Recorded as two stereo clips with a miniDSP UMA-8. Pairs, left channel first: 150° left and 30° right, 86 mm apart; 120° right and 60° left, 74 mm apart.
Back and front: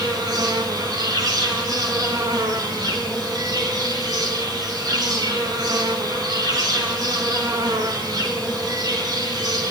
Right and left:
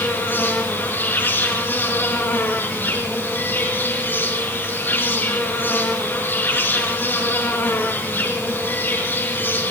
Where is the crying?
No crying in this recording.